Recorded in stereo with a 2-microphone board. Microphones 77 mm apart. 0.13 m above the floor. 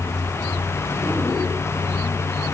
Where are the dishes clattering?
No dishes clattering in this recording.